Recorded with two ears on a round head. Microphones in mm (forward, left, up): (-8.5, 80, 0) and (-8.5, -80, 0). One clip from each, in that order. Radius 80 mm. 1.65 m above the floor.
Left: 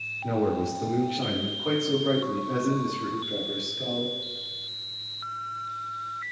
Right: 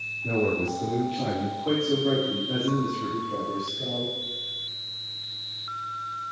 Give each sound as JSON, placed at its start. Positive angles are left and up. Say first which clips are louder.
{"t": 0.2, "sound": "a man speaking", "louder": "right 1 dB", "side_deg": 80, "distance_m": 3.0}